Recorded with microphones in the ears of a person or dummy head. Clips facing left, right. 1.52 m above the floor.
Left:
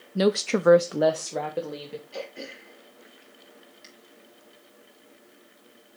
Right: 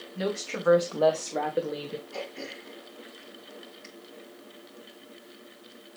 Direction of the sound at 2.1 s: 25° left (ahead or behind).